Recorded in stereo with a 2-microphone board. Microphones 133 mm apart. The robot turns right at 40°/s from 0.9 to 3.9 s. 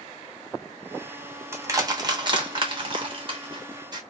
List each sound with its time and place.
1.5 s crushing: 20° right (ahead or behind), 0.8 m; by 4.0 s 30° right (ahead or behind), 0.8 m